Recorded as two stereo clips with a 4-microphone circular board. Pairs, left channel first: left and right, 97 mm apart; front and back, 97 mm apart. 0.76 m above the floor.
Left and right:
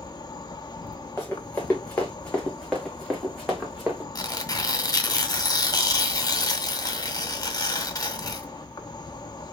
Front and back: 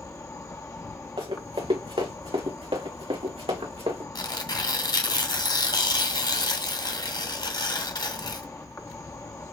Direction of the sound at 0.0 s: 55° left.